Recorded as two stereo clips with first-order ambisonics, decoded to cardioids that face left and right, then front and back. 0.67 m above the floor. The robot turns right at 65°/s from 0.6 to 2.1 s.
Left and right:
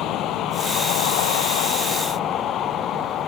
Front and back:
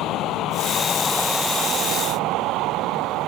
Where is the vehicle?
45° left; by 3.3 s 140° left.